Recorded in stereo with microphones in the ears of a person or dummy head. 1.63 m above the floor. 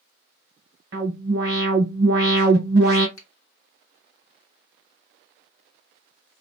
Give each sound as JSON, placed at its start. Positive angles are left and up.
{"t": 0.9, "sound": "an alarm", "side_deg": -45, "distance_m": 1.6}
{"t": 3.2, "sound": "a finger snap", "side_deg": 75, "distance_m": 1.3}